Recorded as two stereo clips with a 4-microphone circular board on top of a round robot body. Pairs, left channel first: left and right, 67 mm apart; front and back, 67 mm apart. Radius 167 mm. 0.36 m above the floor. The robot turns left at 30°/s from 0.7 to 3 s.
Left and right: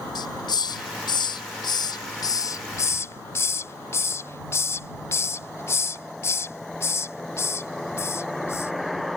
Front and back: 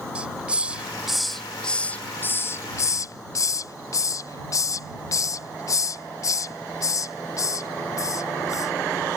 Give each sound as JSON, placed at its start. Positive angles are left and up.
{"t": 0.1, "sound": "a hiss", "azimuth_deg": 105}